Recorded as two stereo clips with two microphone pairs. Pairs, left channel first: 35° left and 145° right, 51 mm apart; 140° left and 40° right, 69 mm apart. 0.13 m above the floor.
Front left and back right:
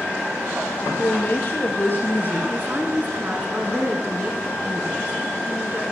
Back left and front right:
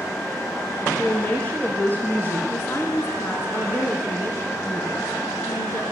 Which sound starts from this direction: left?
A woman speaking, at 0.8 s.